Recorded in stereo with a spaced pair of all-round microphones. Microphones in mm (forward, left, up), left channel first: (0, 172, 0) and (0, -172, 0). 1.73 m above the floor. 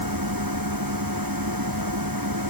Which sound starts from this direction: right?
A machine running, at 0.0 s.